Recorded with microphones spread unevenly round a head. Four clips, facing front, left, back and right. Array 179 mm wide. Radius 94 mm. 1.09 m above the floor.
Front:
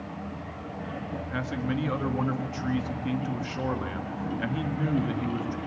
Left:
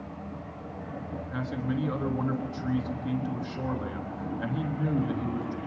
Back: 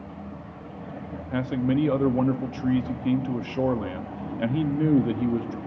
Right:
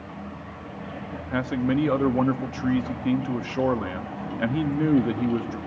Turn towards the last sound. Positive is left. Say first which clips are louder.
# right 8 dB, back 7 dB
turn(degrees=-130)